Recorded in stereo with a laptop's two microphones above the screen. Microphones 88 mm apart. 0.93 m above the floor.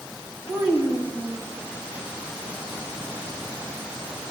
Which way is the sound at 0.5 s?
25° right (ahead or behind).